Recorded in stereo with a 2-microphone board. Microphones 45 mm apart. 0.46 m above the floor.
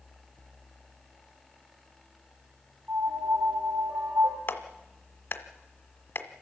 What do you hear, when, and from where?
2.9 s a piano: 70° right (ahead or behind), 6.5 m
4.5 s a clap: 55° left (ahead or behind), 1.5 m